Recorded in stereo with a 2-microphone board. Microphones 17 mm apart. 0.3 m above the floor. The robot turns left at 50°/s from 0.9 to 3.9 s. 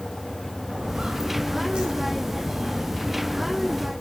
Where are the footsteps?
70° right (ahead or behind), 3 m; by 3.9 s 10° left (ahead or behind), 3 m.